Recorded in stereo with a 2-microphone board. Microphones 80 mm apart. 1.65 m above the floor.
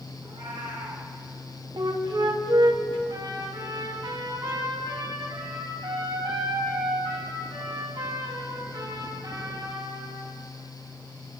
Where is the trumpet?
75° right (ahead or behind), 10 m.